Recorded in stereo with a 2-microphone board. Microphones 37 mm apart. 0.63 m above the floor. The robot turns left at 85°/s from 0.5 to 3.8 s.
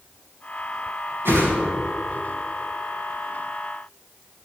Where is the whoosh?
65° right (ahead or behind), 4 m; by 1.5 s 85° right, 4 m.